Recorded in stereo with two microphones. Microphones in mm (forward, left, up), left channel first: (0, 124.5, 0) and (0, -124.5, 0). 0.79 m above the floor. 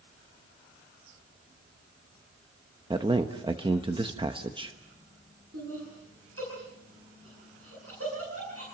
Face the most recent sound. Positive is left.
turn(degrees=-65)  # may be behind; listen again after turning